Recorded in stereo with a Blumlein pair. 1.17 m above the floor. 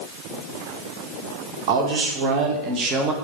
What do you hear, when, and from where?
1.7 s a man speaking: 45° right, 1.7 m; by 3.1 s 25° right, 1.0 m